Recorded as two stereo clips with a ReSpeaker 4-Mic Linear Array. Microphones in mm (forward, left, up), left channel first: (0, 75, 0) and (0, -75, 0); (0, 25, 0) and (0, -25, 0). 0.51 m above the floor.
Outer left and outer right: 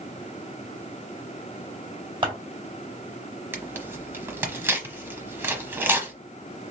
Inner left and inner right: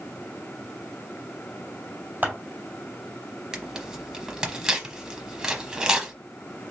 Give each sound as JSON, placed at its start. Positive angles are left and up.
{"t": 2.2, "sound": "scissors", "side_deg": -35, "distance_m": 2.0}
{"t": 3.5, "sound": "tearing paper", "side_deg": -15, "distance_m": 0.9}